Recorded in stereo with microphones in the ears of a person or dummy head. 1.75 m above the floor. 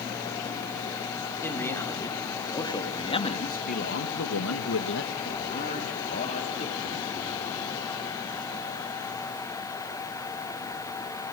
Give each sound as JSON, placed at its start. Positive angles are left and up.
{"t": 1.4, "sound": "a man speaking", "side_deg": 10, "distance_m": 4.5}